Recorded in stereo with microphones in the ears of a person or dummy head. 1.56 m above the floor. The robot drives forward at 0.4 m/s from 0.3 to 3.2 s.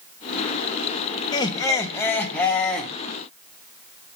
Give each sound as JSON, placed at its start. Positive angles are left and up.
{"t": 1.3, "sound": "laughter", "side_deg": 25, "distance_m": 0.5}